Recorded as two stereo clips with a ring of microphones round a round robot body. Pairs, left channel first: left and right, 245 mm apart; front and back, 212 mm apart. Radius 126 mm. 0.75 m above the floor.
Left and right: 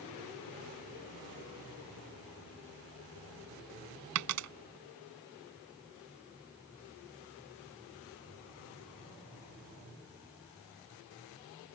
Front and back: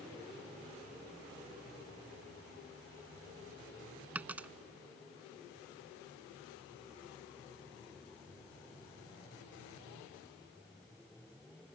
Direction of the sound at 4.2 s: 95° right.